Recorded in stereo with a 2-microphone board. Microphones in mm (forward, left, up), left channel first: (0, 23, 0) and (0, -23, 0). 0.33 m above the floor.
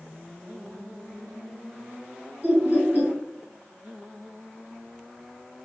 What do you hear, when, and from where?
2.4 s laughter: 45° right (ahead or behind), 2.0 m